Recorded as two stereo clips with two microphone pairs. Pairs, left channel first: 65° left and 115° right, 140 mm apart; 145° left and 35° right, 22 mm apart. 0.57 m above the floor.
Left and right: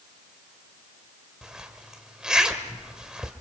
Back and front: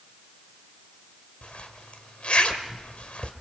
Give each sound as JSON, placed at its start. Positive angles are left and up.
{"t": 1.4, "sound": "a zipper", "azimuth_deg": 160, "distance_m": 1.5}